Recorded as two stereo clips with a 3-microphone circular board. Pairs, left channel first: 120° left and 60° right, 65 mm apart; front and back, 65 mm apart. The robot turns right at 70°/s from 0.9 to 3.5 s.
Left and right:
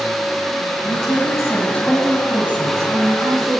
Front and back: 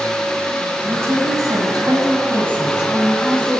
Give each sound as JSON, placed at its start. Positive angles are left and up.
{"t": 0.8, "sound": "a woman speaking", "azimuth_deg": 125, "distance_m": 4.5}